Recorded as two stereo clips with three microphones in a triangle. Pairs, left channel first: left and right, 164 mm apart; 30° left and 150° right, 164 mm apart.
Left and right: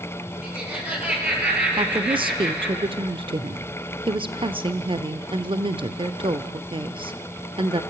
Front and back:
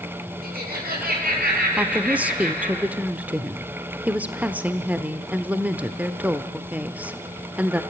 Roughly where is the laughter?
Behind.